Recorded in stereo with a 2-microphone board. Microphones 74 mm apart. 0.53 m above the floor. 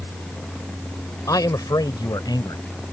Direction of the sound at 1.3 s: 55° left (ahead or behind).